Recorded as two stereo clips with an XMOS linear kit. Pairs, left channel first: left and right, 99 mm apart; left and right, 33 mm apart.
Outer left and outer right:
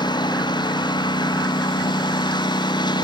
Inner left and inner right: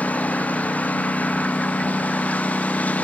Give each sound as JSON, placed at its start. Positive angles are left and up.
{"t": 0.0, "sound": "a lawn mower", "side_deg": 50}